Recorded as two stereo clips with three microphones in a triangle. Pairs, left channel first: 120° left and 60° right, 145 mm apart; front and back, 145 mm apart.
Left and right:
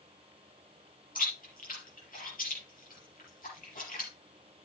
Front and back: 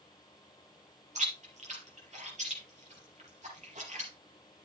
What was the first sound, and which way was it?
Chewing, 140° left.